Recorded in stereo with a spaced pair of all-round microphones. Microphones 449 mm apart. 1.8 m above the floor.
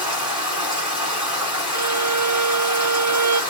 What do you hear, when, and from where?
0.0 s running water: 5° right (ahead or behind), 3.5 m
1.7 s a violin: 40° right (ahead or behind), 0.6 m